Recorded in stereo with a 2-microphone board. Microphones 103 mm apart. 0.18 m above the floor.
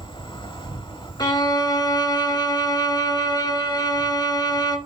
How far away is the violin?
About 1.7 m.